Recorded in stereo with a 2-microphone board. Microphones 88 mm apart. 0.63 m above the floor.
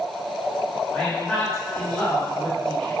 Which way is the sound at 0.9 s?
15° left (ahead or behind).